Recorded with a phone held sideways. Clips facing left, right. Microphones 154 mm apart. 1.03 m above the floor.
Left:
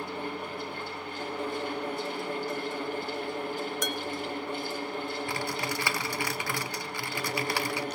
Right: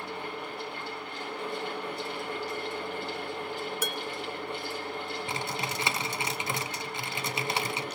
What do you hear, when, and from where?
0.0 s a fan: 50° left (ahead or behind), 7.5 m
3.8 s dishes clattering: 5° right (ahead or behind), 0.7 m
5.3 s typing on a keyboard: 20° right (ahead or behind), 0.6 m